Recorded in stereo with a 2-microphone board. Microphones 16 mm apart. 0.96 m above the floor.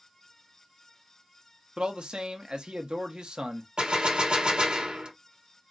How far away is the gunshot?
About 1.8 m.